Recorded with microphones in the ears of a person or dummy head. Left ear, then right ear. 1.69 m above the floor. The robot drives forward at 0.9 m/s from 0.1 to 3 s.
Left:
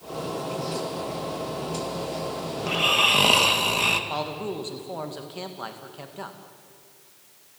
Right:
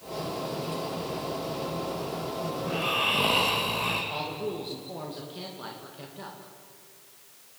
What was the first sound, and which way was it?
Snoring, 80° left.